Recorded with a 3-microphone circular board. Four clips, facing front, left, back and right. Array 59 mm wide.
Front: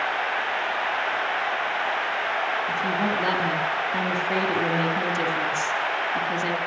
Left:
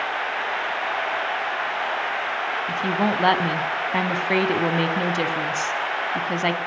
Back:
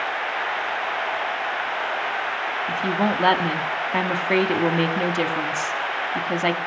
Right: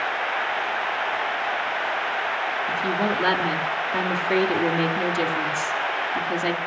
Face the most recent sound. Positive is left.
turn(degrees=140)